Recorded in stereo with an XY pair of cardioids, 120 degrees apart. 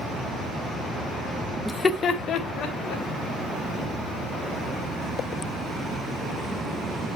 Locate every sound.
1.6 s laughter: straight ahead, 0.6 m; by 3.0 s 75° left, 2.5 m